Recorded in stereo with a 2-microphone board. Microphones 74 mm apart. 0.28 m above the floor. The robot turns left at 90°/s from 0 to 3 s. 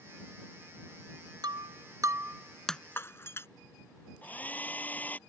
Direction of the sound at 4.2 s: 20° left (ahead or behind).